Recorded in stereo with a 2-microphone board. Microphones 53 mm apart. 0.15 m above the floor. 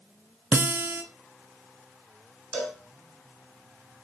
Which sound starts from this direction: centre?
A cowbell, at 2.5 s.